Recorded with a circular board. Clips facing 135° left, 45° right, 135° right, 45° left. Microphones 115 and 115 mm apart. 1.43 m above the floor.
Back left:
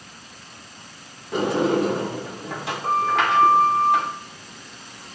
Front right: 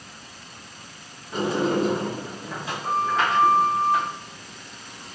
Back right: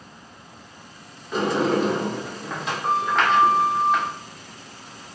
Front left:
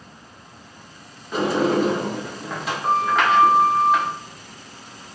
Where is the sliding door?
130° left, 1.1 m.